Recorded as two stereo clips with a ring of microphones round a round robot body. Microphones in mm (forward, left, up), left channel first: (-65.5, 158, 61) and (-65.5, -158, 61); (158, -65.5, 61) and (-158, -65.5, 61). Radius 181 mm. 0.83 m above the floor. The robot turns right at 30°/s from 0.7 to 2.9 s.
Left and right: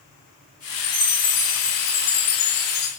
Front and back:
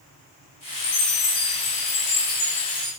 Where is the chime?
25° left, 4 m; by 2.9 s 90° left, 4 m.